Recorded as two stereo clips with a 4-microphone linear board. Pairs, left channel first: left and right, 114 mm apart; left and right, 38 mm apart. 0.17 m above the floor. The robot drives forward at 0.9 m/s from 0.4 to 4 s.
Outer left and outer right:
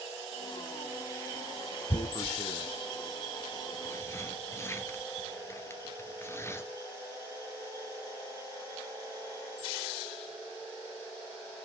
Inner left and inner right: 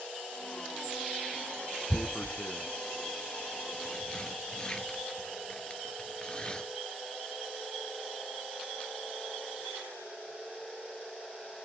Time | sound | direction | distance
1.9 | tearing paper | 40° left (ahead or behind) | 1.2 m